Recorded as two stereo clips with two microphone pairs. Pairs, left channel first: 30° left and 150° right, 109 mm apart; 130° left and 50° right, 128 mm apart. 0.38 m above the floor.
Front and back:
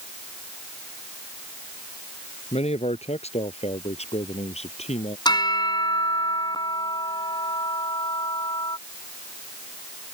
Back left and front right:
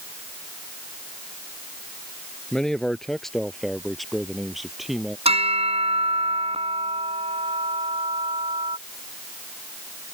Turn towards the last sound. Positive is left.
turn(degrees=-15)